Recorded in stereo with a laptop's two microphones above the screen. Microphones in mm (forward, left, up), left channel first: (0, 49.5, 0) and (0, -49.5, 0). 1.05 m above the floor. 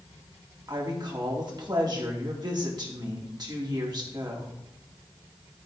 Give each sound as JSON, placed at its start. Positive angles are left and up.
{"t": 0.7, "sound": "a woman speaking", "side_deg": -40, "distance_m": 3.0}